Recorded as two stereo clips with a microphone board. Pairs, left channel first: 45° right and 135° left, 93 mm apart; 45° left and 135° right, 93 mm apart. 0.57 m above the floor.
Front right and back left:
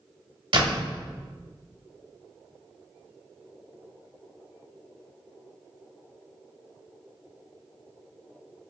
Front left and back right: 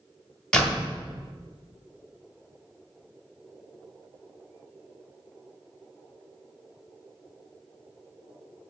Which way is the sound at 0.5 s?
125° left.